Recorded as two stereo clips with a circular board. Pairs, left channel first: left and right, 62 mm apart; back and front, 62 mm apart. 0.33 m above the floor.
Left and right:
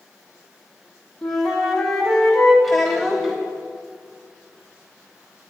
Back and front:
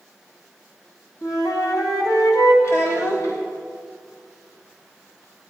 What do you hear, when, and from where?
1.2 s a flute: 175° left, 1.5 m
2.6 s a child speaking: straight behind, 0.8 m